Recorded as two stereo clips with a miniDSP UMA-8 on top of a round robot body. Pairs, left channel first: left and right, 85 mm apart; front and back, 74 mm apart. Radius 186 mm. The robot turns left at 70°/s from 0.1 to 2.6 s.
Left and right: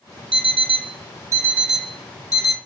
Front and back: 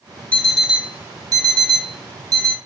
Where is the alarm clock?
75° right, 0.6 m; by 2.6 s 125° left, 0.6 m.